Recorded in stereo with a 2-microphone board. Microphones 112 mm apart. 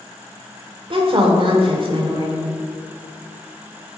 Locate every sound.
0.9 s a woman speaking: 50° right (ahead or behind), 1.6 m